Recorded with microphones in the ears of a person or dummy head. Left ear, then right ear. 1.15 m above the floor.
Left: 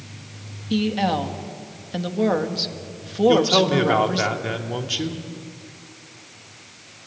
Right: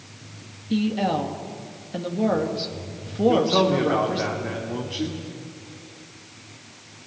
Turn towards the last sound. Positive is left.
turn(degrees=70)  # may be behind; listen again after turning